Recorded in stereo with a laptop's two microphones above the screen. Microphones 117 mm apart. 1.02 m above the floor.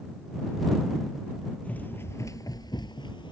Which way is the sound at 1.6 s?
10° left (ahead or behind).